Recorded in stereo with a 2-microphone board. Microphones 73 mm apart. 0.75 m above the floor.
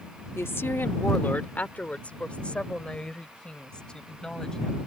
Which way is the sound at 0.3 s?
35° left (ahead or behind).